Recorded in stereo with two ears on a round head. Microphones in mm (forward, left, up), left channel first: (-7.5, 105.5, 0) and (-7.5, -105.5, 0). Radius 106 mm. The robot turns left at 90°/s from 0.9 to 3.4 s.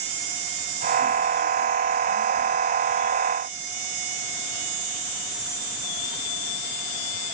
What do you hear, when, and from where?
Only background noise.